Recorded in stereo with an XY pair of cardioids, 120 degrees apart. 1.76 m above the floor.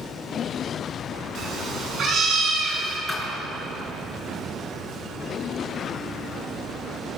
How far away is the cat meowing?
About 8 m.